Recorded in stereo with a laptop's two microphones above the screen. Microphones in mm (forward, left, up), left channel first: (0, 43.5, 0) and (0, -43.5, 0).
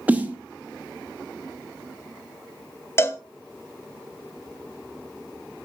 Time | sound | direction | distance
0.1 | a snare drum | 15° right (ahead or behind) | 0.6 m
3.0 | a cowbell | 30° left (ahead or behind) | 0.7 m